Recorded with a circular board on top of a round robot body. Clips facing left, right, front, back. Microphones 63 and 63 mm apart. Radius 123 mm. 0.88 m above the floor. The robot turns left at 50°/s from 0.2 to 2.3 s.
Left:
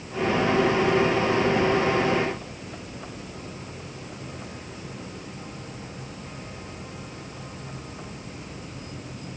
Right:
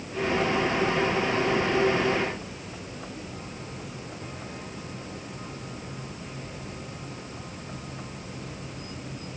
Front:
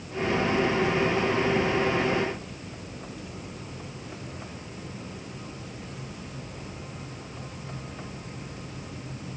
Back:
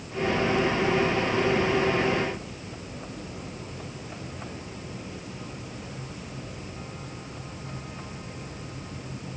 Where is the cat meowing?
No cat meowing in this recording.